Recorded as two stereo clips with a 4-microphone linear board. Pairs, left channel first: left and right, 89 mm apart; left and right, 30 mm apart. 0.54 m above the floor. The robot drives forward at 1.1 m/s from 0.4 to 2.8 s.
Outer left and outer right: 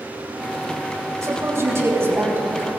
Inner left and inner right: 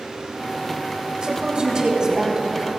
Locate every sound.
1.2 s a woman speaking: 35° right (ahead or behind), 3.5 m; by 2.7 s 25° right (ahead or behind), 5 m